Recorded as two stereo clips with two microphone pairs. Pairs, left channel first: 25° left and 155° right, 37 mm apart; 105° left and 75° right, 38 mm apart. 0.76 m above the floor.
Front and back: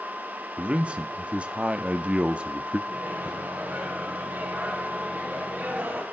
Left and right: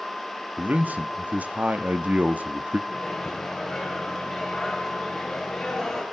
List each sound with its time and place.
0.6 s a man speaking: 105° right, 1.1 m
2.9 s a microwave: 175° right, 4 m